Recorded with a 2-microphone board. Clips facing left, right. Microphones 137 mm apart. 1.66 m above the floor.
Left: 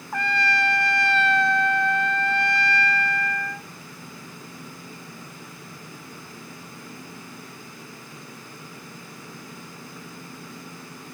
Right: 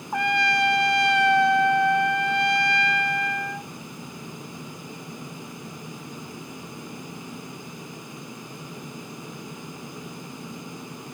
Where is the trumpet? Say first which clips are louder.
Right 2 dB; 15° right (ahead or behind), 0.7 m.